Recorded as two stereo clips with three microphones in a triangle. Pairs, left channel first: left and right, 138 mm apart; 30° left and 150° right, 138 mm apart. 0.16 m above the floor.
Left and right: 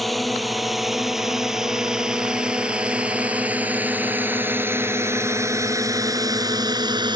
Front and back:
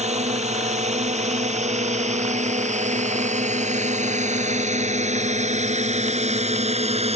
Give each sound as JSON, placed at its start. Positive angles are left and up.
{"t": 0.0, "sound": "a drone", "azimuth_deg": 180}